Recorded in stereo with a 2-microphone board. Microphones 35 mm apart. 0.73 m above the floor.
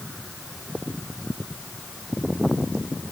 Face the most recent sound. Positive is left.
No sound to turn to.